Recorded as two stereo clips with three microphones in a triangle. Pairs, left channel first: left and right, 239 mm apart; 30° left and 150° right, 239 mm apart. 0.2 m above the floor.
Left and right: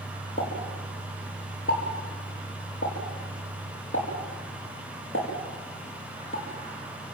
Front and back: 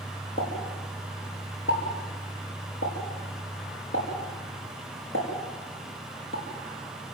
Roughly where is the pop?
Ahead left.